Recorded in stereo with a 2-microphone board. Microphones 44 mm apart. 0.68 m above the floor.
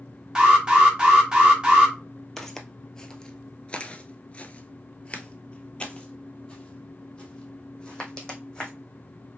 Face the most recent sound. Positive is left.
turn(degrees=15)  # may be behind; listen again after turning